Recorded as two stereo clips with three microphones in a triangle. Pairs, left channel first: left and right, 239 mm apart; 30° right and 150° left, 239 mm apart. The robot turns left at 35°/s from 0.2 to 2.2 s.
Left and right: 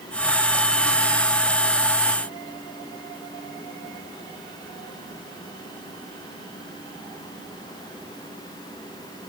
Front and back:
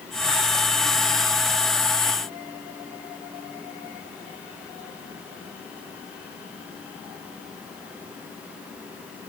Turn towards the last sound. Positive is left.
No sound to turn to.